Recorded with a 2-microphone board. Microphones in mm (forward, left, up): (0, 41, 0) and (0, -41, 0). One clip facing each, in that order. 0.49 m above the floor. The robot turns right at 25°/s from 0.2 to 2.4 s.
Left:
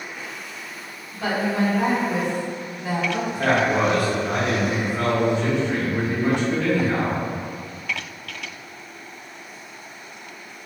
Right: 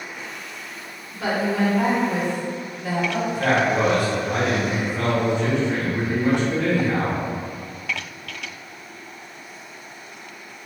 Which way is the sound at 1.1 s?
25° right.